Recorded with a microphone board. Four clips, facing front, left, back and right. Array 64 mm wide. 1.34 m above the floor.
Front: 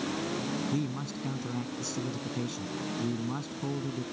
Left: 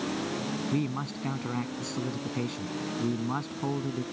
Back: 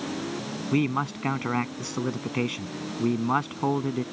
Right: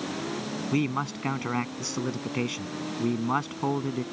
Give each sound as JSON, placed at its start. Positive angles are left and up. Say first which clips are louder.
{"t": 0.7, "sound": "a man speaking", "louder": "right 7 dB, back 8 dB", "azimuth_deg": -155}